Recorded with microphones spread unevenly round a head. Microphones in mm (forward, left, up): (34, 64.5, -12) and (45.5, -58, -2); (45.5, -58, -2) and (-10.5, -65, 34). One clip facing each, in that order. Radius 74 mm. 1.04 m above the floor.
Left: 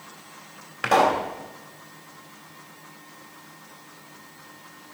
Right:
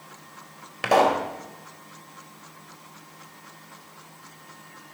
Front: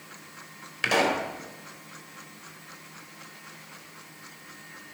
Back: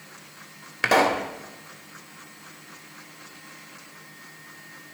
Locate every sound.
0.8 s a pop: 155° right, 1.7 m